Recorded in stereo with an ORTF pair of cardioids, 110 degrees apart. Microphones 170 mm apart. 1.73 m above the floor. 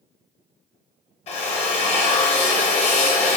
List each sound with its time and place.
1.3 s a drill: 40° left, 0.9 m